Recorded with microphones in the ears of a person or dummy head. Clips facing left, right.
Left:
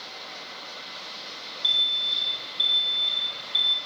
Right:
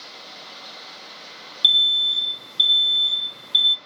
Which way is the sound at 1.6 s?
70° right (ahead or behind).